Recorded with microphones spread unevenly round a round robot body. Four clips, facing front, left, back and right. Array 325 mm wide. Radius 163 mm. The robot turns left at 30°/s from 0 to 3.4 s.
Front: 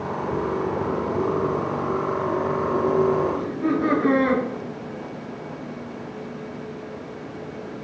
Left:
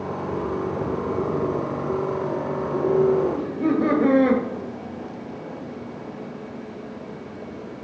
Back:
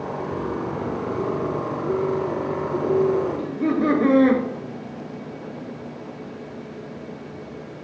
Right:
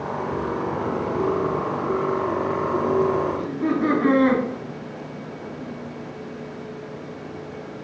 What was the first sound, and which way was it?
Laughter, 125° left.